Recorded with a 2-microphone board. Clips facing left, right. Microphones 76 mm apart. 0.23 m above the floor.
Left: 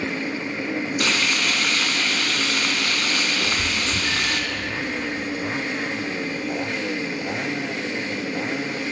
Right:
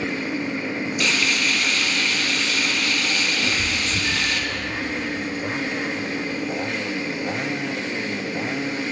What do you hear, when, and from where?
1.0 s frying: 40° left (ahead or behind), 1.0 m
3.4 s a cat meowing: 80° left, 3 m